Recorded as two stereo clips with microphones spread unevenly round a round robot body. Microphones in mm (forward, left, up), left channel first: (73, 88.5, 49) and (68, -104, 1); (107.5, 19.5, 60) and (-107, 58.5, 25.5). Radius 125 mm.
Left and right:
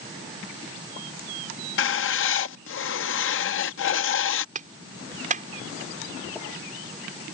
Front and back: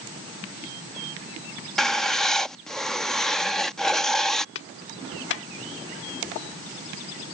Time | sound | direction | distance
1.8 | writing | 85° left | ?
4.5 | a clap | 50° right | ?